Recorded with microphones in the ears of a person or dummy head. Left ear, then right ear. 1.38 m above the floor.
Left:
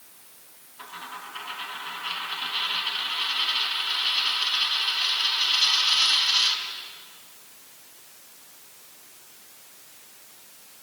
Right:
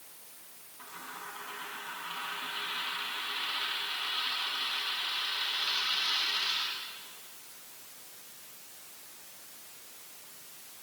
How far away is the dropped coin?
About 5 m.